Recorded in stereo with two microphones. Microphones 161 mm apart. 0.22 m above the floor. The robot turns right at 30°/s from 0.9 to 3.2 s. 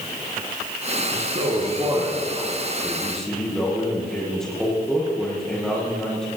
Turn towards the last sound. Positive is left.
turn(degrees=5)